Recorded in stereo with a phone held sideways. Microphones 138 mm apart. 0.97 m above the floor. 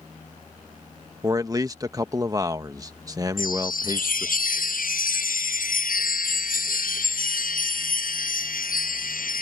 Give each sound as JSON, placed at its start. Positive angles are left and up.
{"t": 1.2, "sound": "a man speaking", "side_deg": -25}
{"t": 3.4, "sound": "a chime", "side_deg": 80}